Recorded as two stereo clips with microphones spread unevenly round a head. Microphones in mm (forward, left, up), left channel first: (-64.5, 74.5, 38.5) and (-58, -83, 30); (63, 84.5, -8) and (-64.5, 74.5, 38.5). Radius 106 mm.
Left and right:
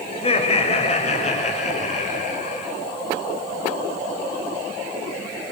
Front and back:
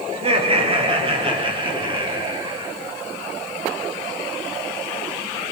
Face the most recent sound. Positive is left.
turn(degrees=135)